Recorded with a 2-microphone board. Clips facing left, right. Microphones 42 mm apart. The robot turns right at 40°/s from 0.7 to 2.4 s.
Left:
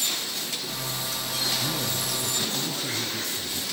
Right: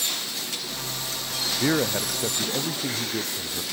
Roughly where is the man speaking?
Right.